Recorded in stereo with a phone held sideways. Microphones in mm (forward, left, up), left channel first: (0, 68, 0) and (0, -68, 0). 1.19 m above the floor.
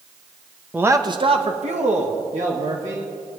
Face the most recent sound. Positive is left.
turn(degrees=-70)  # may be behind; listen again after turning